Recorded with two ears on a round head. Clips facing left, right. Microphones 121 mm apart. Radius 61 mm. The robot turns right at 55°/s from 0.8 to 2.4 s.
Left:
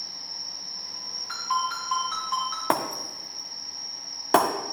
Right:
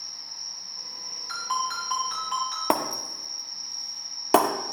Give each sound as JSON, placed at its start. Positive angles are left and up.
{"t": 0.0, "sound": "an insect", "azimuth_deg": -175, "distance_m": 2.5}
{"t": 1.3, "sound": "a ringtone", "azimuth_deg": -135, "distance_m": 4.0}
{"t": 2.7, "sound": "breaking glass", "side_deg": -10, "distance_m": 0.8}